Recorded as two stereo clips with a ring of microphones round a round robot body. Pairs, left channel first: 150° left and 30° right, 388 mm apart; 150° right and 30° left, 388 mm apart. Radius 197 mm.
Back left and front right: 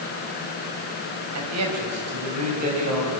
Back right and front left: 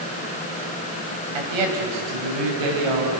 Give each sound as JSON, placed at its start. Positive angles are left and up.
{"t": 1.4, "sound": "a man speaking", "azimuth_deg": 20, "distance_m": 4.5}